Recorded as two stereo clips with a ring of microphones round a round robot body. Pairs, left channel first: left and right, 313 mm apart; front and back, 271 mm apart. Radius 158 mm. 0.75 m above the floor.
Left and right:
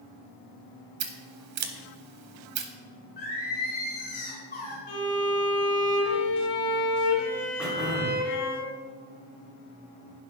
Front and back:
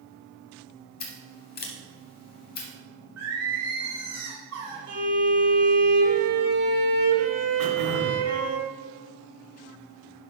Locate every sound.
1.0 s scissors: 60° right, 0.9 m
3.2 s singing: 155° left, 4 m
4.9 s a violin: 130° left, 2.5 m
7.6 s throat clearing: 175° right, 2 m